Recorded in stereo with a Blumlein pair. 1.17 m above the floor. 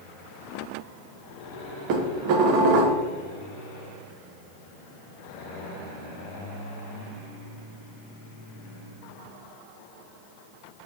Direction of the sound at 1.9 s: 45° right.